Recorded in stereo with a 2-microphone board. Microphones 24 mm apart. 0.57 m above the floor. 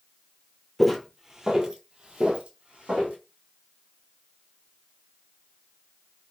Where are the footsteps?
Centre (ahead or behind), 0.6 m; by 3.1 s 65° right (ahead or behind), 1.4 m.